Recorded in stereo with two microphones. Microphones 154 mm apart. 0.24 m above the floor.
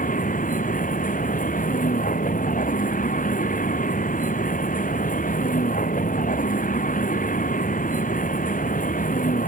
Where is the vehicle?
60° left (ahead or behind).